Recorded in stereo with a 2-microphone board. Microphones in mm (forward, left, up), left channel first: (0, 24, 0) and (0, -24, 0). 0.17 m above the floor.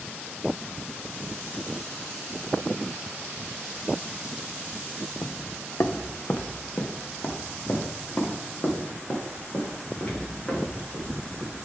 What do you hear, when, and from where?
5.2 s footsteps: 75° left (ahead or behind), 0.6 m; by 11.6 s 35° left (ahead or behind), 4.5 m